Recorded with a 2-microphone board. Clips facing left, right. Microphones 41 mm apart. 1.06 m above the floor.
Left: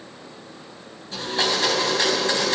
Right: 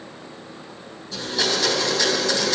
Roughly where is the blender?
Left.